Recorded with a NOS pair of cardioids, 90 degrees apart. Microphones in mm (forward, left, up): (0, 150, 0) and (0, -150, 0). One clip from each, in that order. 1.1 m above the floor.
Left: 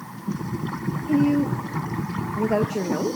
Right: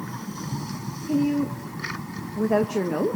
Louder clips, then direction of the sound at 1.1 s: Left 3 dB; 20° left.